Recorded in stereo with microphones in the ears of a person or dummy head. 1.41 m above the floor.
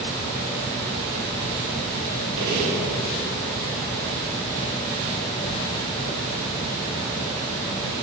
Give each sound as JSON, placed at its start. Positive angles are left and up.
{"t": 2.4, "sound": "a gunshot", "side_deg": -55, "distance_m": 3.5}